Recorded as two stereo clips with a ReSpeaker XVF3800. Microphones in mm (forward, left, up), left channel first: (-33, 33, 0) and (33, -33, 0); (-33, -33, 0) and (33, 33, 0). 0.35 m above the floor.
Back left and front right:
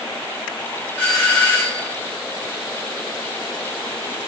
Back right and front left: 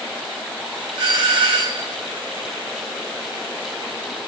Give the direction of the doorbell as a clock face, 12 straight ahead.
10 o'clock.